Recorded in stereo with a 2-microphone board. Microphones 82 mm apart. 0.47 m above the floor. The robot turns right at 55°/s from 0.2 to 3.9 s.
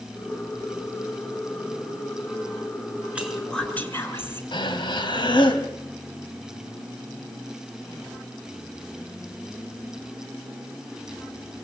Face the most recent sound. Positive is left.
turn(degrees=70)  # may be behind; listen again after turning